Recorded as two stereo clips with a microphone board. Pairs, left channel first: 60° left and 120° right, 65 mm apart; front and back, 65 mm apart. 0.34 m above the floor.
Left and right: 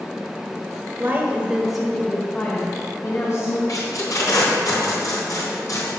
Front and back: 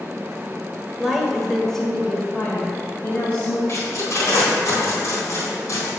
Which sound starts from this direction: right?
A woman speaking, at 1.0 s.